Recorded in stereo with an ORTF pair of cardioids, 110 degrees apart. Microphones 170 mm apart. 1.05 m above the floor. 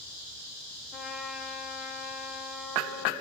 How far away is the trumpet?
About 0.9 m.